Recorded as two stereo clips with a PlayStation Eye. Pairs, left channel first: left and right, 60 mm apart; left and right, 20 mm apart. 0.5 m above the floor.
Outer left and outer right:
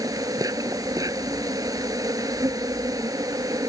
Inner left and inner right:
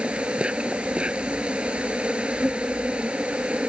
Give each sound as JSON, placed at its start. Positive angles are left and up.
{"t": 0.0, "sound": "an insect", "side_deg": -90}